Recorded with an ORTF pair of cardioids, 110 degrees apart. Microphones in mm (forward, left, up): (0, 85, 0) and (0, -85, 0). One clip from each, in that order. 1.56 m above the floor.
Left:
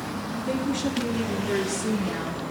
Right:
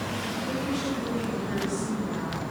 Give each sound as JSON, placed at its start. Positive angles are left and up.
{"t": 0.3, "sound": "a woman speaking", "azimuth_deg": 40, "distance_m": 3.0}